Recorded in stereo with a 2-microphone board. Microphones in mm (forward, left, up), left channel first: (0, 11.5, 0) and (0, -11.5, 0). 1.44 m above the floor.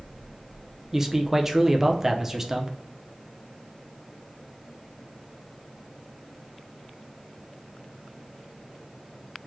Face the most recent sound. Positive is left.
turn(degrees=-15)  # may be behind; listen again after turning